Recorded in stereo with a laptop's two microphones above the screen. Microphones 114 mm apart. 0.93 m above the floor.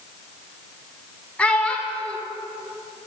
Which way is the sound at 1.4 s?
10° left (ahead or behind).